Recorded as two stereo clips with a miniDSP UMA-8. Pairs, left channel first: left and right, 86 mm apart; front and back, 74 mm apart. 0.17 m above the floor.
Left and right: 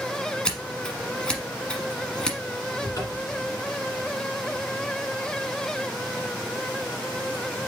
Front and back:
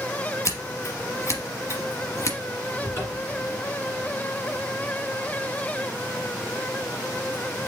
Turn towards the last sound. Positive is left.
turn(degrees=55)